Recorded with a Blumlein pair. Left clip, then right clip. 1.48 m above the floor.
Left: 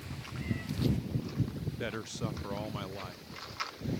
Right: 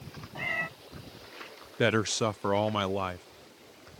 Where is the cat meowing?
35° right.